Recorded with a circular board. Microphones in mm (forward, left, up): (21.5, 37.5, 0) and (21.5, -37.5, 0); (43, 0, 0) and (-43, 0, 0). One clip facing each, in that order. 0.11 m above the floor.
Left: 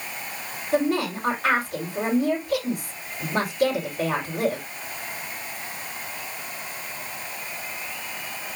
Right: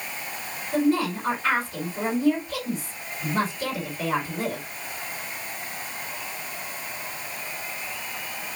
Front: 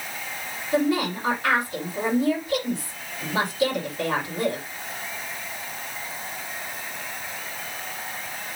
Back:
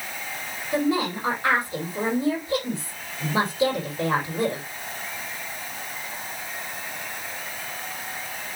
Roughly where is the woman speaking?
Behind left.